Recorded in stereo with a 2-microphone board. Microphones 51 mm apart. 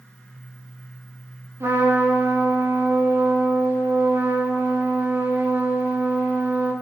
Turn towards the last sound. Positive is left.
turn(degrees=-65)  # may be behind; listen again after turning